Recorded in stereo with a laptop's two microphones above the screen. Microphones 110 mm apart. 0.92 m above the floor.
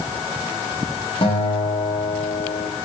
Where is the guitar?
55° left (ahead or behind), 2 m.